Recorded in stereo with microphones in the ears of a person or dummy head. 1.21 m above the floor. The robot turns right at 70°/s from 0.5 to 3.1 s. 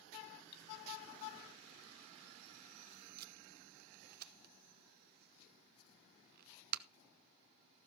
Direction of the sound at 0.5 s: 60° left (ahead or behind).